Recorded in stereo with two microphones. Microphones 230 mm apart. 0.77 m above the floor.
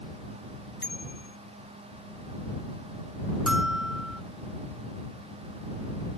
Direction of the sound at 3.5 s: 5° right (ahead or behind).